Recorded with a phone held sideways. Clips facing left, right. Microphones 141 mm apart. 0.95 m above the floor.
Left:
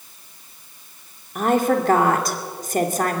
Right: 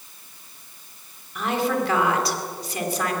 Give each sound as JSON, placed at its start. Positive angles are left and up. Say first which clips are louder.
{"t": 1.4, "sound": "a woman speaking", "louder": "left 5 dB", "side_deg": 45, "distance_m": 2.5}